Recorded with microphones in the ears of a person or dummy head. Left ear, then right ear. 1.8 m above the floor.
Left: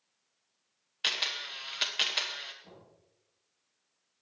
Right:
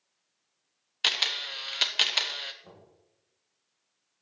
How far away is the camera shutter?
About 1.0 m.